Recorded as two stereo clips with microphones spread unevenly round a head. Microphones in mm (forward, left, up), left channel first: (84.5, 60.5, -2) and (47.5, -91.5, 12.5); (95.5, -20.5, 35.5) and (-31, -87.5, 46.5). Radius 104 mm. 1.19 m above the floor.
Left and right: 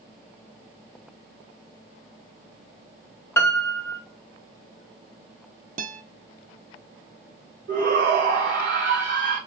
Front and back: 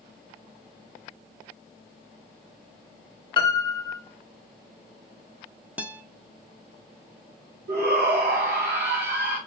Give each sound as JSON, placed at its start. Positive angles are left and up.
{"t": 3.4, "sound": "a piano", "azimuth_deg": 10, "distance_m": 0.8}
{"t": 5.8, "sound": "a guitar", "azimuth_deg": -70, "distance_m": 0.7}
{"t": 7.7, "sound": "a shout", "azimuth_deg": -155, "distance_m": 1.0}